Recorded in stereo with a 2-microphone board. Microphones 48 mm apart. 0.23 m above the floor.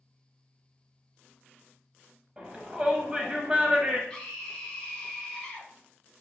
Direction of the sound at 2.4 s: 20° right (ahead or behind).